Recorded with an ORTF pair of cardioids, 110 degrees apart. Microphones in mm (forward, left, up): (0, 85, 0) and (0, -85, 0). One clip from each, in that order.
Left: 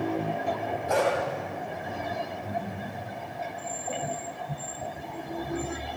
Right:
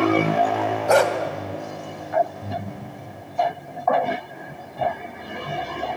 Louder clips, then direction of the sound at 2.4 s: Right 1 dB; 40° right.